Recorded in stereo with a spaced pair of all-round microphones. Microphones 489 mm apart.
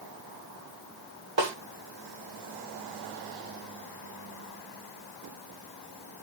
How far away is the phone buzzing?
I don't hear a phone buzzing.